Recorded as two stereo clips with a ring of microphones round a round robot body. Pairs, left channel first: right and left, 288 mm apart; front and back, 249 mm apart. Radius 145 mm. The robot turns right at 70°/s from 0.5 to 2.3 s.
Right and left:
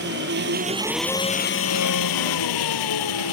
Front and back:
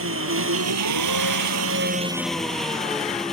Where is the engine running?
145° left; by 3.3 s 90° right.